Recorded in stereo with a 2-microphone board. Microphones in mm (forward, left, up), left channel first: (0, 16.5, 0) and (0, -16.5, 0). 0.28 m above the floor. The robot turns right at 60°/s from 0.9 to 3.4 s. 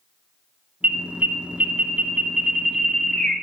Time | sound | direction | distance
0.8 | an alarm | 120° right | 1.2 m